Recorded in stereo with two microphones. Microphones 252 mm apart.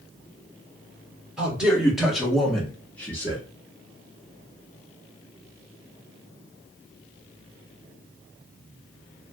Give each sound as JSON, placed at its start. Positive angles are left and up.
{"t": 1.4, "sound": "a man speaking", "side_deg": -5, "distance_m": 1.7}